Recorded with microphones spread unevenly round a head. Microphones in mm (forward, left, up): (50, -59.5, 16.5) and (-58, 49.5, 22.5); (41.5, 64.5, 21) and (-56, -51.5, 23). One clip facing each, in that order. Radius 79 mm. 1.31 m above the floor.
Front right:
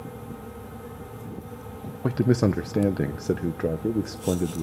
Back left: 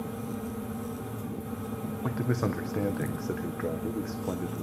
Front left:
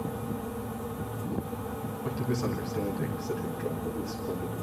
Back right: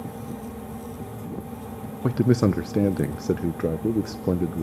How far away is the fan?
About 2.5 m.